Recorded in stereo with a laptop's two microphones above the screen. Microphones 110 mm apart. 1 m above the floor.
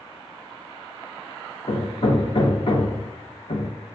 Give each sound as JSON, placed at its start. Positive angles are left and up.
{"t": 1.7, "sound": "hammering", "side_deg": 60, "distance_m": 0.9}